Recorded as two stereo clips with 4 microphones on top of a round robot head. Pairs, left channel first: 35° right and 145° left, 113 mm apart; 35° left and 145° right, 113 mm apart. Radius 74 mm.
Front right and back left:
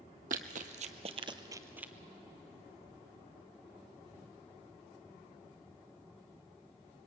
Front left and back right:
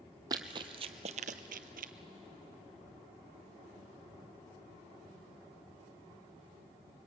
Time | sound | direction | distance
0.3 | running footsteps | 160° left | 1.2 m